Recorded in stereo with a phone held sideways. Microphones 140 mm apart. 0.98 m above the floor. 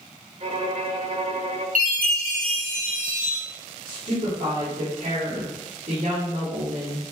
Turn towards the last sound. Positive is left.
turn(degrees=-65)  # may be behind; listen again after turning